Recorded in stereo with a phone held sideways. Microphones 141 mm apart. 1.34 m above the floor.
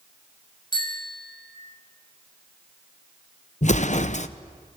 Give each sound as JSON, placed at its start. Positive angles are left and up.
{"t": 0.7, "sound": "a bicycle bell", "side_deg": 30, "distance_m": 5.0}
{"t": 3.6, "sound": "an explosion", "side_deg": 55, "distance_m": 0.9}